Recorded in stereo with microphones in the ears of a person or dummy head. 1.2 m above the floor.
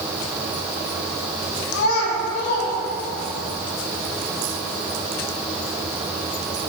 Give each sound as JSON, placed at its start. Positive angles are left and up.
{"t": 1.7, "sound": "a child speaking", "side_deg": 75, "distance_m": 1.3}